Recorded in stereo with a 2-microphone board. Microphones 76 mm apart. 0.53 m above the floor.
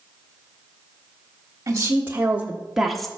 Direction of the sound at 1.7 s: 35° right (ahead or behind).